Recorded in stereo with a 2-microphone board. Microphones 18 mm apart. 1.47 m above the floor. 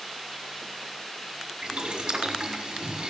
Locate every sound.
1.6 s boiling: 55° right (ahead or behind), 4.5 m